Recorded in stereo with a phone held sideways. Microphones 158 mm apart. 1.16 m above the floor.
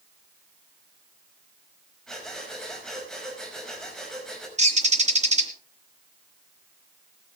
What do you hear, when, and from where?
2.1 s breathing: 5° left (ahead or behind), 5 m
4.6 s a bird: 50° right (ahead or behind), 2 m